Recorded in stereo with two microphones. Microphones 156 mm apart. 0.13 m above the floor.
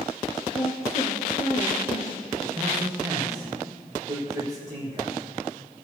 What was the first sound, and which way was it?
A woman speaking, 45° left (ahead or behind).